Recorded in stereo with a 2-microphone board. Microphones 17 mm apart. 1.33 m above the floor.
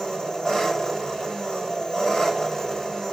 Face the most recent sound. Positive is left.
turn(degrees=85)